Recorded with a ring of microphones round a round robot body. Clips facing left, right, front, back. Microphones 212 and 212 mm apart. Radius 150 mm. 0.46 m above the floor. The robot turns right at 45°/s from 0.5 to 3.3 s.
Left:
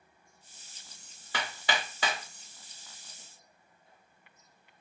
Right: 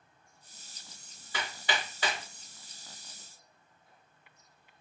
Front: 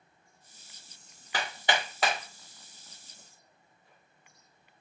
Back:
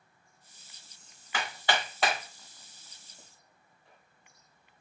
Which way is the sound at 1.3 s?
60° left.